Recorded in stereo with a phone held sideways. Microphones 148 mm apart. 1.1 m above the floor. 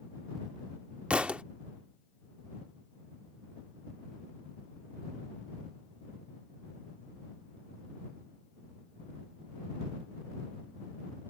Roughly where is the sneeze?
I don't hear a sneeze.